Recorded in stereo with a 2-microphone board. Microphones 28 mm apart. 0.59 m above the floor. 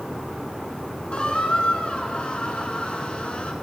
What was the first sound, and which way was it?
A squeak, 45° left (ahead or behind).